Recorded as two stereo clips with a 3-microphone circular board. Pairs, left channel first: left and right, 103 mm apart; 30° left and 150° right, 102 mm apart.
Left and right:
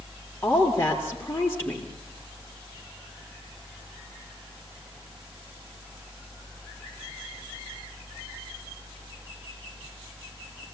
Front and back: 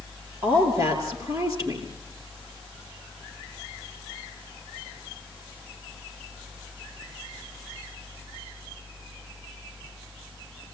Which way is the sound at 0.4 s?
155° left.